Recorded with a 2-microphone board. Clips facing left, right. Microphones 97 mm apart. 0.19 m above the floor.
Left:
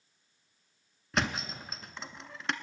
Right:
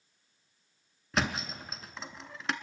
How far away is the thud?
About 0.6 m.